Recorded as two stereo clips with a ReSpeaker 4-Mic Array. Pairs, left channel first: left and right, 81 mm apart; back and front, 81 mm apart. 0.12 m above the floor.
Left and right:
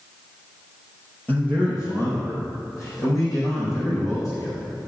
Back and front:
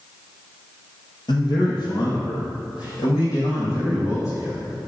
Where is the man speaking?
160° left, 2 m; by 4.8 s 135° left, 6.5 m.